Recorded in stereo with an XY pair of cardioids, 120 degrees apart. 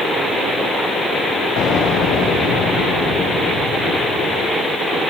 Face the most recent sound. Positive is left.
turn(degrees=60)